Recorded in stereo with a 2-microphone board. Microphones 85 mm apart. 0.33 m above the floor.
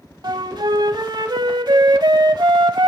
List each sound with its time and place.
0.2 s a flute: 60° right (ahead or behind), 0.7 m